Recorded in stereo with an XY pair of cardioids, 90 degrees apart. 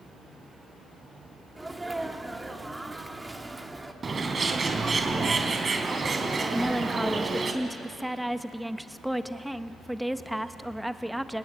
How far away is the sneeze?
About 2.5 m.